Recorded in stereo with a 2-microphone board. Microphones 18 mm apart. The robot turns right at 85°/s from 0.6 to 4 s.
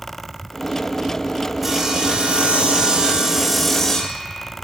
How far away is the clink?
No clink in this recording.